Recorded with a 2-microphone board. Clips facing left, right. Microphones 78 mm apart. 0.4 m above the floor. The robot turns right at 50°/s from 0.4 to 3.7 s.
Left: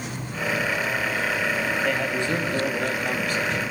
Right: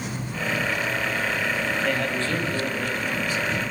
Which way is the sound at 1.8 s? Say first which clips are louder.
Left 1 dB; straight ahead.